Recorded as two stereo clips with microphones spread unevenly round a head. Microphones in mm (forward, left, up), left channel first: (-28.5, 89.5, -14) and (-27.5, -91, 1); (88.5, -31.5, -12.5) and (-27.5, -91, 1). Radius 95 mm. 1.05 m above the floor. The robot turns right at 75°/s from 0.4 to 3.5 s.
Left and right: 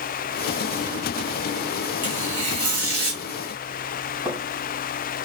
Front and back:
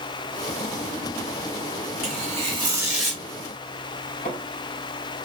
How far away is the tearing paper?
About 3 m.